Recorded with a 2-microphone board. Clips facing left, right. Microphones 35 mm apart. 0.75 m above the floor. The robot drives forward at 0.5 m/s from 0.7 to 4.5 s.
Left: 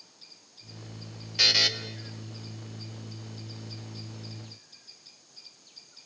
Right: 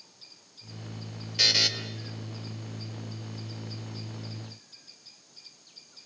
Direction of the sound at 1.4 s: 5° left (ahead or behind).